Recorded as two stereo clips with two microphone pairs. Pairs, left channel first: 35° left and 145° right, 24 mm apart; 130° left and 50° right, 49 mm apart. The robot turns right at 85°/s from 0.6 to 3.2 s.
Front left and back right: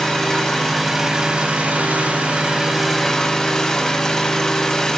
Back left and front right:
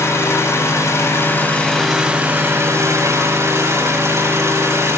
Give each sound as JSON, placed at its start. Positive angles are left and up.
{"t": 0.0, "sound": "an engine running", "azimuth_deg": 105, "distance_m": 9.0}